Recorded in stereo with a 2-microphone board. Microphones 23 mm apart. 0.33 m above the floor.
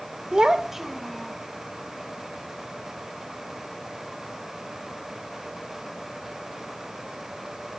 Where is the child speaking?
35° right (ahead or behind), 0.5 m; by 1.4 s 5° left (ahead or behind), 1.5 m.